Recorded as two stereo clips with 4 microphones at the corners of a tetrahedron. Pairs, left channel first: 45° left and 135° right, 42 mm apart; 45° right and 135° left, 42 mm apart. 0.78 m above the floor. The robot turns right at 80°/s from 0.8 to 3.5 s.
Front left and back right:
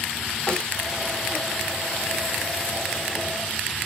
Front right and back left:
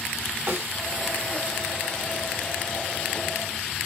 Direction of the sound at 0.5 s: 105° left.